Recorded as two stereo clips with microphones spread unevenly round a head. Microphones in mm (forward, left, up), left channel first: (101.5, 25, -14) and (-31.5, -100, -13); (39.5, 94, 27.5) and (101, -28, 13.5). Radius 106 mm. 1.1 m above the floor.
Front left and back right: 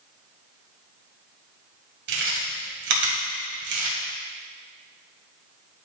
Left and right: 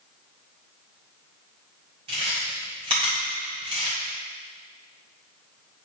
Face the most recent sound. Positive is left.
turn(degrees=-130)